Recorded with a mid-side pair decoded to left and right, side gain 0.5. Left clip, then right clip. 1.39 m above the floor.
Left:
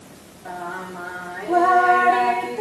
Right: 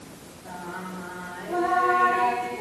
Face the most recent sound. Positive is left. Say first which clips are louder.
# left 6 dB
turn(degrees=65)